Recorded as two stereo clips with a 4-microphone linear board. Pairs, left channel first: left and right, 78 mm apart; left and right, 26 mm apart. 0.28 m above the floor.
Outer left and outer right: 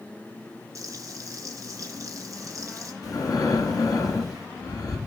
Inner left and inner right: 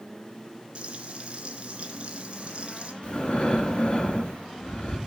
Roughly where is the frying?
Right.